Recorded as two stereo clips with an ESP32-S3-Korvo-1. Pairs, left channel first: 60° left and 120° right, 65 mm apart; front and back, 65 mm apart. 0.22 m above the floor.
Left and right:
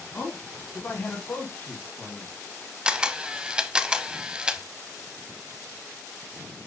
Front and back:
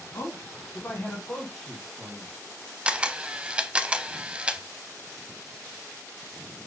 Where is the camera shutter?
160° right, 0.6 m.